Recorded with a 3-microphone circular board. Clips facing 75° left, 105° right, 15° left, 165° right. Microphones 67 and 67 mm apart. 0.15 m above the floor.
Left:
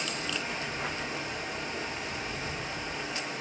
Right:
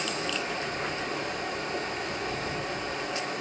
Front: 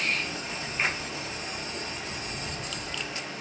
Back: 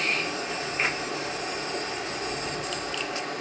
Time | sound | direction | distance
0.0 | running water | 135° right | 2 m